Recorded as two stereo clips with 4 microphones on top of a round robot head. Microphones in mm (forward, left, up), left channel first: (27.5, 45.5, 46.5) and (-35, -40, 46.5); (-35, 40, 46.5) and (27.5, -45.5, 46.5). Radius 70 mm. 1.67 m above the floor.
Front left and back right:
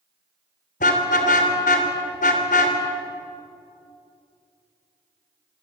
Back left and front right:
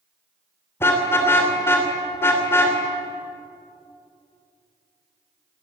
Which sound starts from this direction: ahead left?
A car horn, at 0.8 s.